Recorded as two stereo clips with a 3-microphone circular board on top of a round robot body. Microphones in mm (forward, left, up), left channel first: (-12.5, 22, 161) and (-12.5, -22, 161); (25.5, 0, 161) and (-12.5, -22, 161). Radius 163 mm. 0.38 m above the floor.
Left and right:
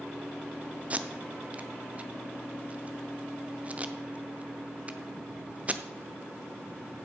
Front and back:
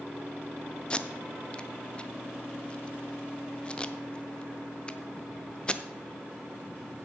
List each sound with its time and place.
0.9 s tape being pulled: 35° right, 0.8 m